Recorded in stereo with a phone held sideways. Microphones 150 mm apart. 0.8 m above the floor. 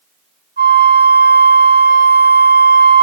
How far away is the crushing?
No crushing in this recording.